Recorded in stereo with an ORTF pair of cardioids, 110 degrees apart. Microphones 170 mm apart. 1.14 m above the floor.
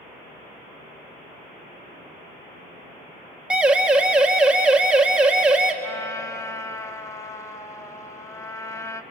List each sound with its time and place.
3.5 s a siren: 5° right, 2 m
5.8 s a trumpet: 15° left, 1.2 m